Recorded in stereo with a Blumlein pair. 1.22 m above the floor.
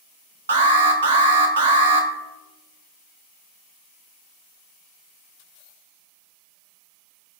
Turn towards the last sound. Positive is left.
turn(degrees=-60)